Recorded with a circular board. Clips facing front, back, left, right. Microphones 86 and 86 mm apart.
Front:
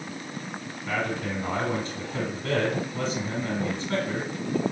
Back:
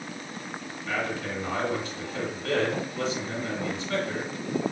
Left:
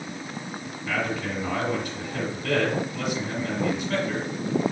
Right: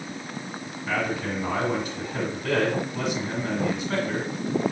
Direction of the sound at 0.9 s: 25° right.